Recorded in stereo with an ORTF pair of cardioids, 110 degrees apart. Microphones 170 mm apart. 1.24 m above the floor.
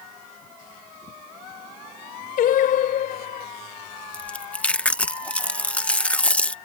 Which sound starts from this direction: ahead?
Chewing, at 4.1 s.